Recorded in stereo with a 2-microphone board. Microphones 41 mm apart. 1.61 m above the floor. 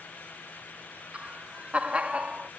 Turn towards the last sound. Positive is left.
turn(degrees=-25)  # may be behind; listen again after turning